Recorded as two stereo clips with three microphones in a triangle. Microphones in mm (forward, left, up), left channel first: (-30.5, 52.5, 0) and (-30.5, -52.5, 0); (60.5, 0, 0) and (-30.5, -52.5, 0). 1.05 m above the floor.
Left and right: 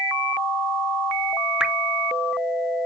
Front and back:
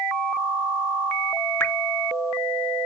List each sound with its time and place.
1.6 s dripping: 15° right